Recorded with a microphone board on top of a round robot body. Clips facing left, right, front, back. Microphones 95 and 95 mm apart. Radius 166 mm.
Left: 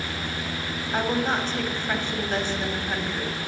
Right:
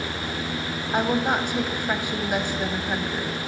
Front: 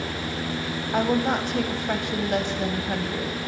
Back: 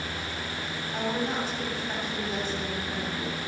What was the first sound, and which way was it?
A woman speaking, 15° right.